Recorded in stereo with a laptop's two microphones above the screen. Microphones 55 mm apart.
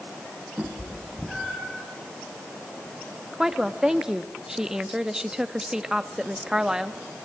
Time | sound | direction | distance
0.6 | a cat meowing | 15° right (ahead or behind) | 3.5 m
3.3 | a woman speaking | 10° right (ahead or behind) | 1.0 m